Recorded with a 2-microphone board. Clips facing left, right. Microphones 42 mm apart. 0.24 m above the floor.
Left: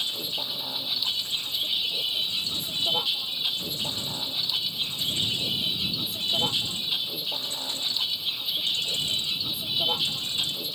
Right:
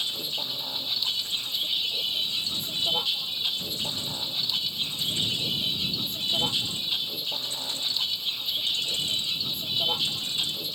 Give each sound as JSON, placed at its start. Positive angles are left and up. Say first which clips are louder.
{"t": 0.0, "sound": "a vehicle", "louder": "even", "side_deg": 5}